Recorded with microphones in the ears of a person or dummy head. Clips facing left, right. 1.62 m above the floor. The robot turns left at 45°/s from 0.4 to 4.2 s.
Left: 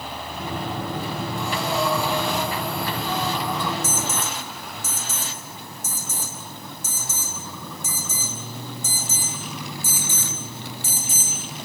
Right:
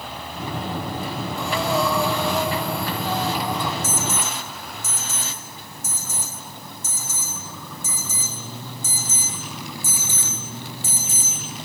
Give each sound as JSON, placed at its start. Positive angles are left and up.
{"t": 1.4, "sound": "breathing", "azimuth_deg": -65, "distance_m": 2.0}
{"t": 3.8, "sound": "an alarm", "side_deg": 80, "distance_m": 5.5}